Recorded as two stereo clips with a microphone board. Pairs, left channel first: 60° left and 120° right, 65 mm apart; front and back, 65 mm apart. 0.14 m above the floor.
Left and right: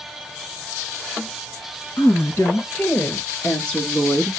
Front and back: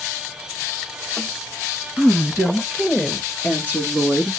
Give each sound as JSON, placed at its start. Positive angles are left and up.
{"t": 2.0, "sound": "a woman speaking", "azimuth_deg": 105, "distance_m": 2.5}